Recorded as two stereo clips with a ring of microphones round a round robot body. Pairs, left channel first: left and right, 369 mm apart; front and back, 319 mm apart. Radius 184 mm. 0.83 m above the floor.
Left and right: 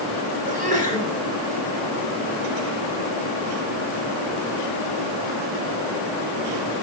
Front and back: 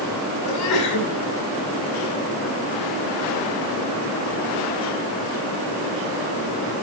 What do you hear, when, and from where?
0.4 s a sneeze: 20° right, 7.5 m